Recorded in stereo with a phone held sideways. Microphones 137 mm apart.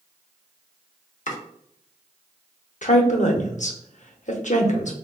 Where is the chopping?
65° left (ahead or behind), 0.8 m.